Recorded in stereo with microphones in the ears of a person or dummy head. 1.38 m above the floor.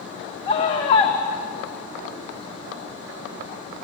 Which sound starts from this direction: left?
A scream, at 0.5 s.